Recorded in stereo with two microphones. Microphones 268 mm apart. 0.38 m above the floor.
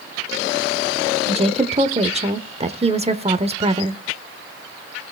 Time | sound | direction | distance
1.3 | a woman speaking | 25° right (ahead or behind) | 0.8 m